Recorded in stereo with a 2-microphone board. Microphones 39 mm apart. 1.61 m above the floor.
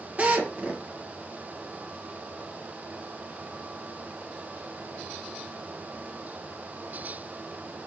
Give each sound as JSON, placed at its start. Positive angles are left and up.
{"t": 0.2, "sound": "a drill", "side_deg": -40, "distance_m": 2.0}